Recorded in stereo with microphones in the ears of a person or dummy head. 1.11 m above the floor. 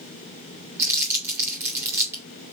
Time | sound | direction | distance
0.8 | crumpling | 10° right (ahead or behind) | 1.5 m